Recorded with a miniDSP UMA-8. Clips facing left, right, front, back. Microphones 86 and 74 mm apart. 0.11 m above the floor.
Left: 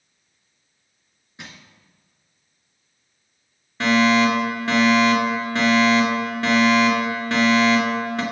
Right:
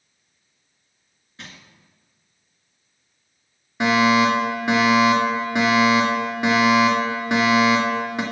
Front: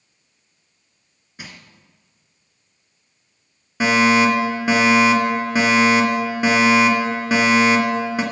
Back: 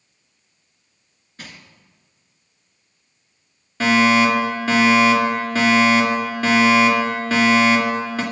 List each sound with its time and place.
1.4 s crushing: 55° left, 1.8 m
3.8 s a fire alarm: 45° right, 2 m